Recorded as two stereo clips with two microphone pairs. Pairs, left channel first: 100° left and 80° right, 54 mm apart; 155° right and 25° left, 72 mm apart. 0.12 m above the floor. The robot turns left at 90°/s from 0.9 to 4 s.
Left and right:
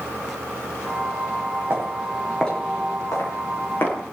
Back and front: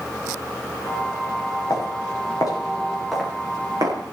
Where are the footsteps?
120° right, 6.5 m; by 4.1 s 45° left, 7 m.